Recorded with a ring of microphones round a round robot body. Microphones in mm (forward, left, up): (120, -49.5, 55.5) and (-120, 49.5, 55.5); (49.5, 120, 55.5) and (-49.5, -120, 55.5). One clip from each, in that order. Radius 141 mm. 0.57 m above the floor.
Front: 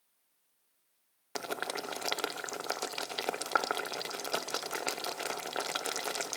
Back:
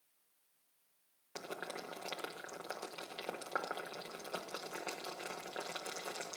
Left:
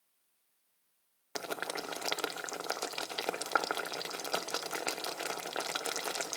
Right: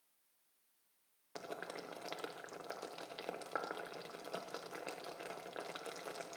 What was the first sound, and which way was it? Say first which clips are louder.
Boiling: front 8 dB, left 9 dB; 25° left.